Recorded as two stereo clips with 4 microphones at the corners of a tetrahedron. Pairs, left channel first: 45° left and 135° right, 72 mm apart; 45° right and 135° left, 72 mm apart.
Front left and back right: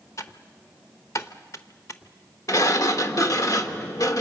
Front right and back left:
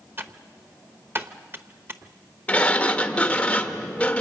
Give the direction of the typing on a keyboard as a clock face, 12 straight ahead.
9 o'clock.